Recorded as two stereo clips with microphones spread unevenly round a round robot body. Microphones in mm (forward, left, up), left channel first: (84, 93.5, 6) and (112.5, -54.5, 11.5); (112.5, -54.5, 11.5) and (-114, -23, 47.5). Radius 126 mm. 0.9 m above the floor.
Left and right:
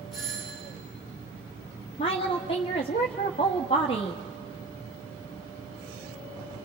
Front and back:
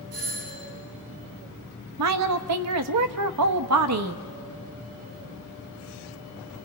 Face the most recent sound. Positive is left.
turn(degrees=165)